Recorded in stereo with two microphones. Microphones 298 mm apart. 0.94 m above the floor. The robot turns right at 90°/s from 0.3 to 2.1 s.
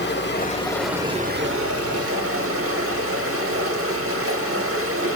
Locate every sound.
0.0 s running water: 130° left, 0.8 m; by 5.2 s 70° right, 0.8 m